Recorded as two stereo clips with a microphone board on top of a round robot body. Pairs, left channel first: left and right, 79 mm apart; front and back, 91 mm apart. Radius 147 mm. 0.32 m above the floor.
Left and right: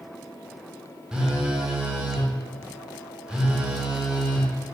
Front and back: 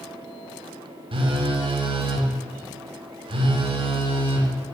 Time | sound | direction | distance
1.1 | a phone buzzing | 170° right | 0.6 m